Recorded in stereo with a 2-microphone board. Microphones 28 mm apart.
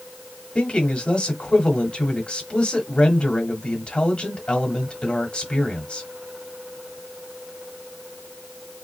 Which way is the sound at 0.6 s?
40° left (ahead or behind).